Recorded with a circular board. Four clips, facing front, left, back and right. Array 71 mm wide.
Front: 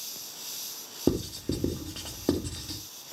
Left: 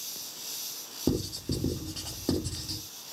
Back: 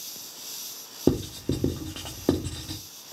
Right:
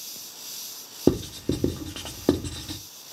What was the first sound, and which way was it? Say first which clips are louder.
Writing: right 7 dB, back 3 dB; 110° right.